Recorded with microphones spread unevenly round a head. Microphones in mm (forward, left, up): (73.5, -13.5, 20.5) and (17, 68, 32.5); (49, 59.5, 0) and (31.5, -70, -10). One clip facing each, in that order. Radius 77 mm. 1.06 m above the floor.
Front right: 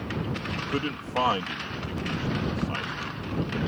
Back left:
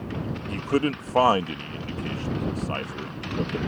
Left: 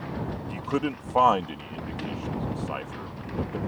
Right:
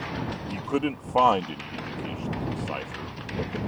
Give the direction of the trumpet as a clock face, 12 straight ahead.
I don't hear a trumpet.